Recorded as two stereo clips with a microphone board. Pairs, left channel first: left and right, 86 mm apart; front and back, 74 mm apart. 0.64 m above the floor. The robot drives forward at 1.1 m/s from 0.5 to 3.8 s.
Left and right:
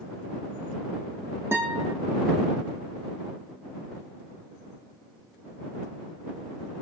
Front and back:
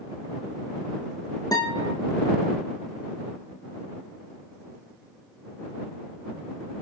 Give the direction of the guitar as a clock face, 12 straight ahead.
1 o'clock.